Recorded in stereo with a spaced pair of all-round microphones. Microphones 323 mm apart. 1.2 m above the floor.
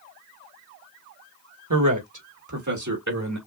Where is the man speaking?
80° right, 1.8 m; by 3.4 s 60° right (ahead or behind), 3 m.